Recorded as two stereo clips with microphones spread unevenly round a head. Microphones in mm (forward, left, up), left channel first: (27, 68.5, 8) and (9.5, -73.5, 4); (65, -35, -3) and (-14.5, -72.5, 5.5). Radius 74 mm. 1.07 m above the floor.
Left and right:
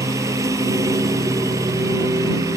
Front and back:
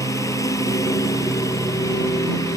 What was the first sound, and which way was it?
A lawn mower, 30° right.